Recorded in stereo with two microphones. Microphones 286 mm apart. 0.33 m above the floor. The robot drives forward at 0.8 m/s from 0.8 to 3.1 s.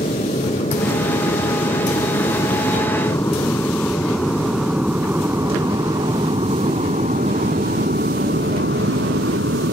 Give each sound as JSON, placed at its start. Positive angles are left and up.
{"t": 0.0, "sound": "an aircraft", "side_deg": 25}